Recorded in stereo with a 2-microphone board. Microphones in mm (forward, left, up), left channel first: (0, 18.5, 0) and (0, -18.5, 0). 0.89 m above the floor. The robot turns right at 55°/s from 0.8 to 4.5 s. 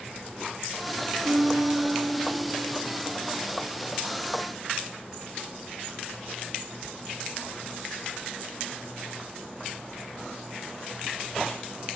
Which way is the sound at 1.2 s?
115° right.